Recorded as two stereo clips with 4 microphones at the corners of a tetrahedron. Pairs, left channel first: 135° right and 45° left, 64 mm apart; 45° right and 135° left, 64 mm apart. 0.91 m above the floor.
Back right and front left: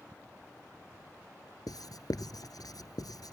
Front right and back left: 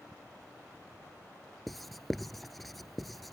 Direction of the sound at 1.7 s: 135° right.